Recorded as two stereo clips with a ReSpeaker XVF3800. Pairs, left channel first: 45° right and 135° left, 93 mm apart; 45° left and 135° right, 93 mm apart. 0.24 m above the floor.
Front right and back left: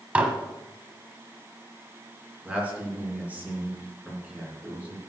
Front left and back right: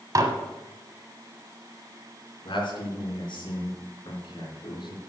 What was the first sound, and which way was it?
Dishes clattering, 155° right.